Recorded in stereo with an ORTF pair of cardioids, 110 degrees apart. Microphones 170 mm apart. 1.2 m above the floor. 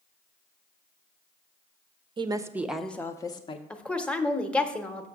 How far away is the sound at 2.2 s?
About 0.6 m.